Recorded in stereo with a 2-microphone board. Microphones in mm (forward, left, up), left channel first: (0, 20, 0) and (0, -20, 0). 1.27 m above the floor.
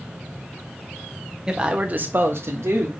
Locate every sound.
1.5 s a man speaking: 15° right (ahead or behind), 0.9 m; by 2.9 s 65° right (ahead or behind), 0.9 m